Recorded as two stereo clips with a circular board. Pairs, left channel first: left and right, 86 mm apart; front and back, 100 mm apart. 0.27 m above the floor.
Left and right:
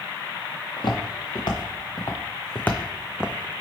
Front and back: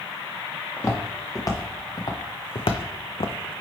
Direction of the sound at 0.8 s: 65° left.